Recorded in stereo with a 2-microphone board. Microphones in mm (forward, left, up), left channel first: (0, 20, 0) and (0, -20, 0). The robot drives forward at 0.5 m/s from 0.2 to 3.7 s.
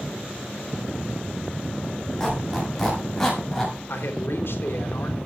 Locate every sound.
2.2 s a squeak: 5° left (ahead or behind), 8 m; by 3.8 s 10° left (ahead or behind), 7 m
3.9 s a man speaking: 65° left (ahead or behind), 4 m